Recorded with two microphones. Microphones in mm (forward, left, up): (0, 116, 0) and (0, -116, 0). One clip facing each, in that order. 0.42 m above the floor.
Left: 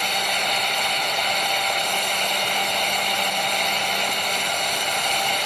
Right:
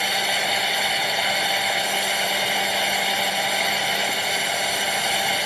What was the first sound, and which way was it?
Only background noise.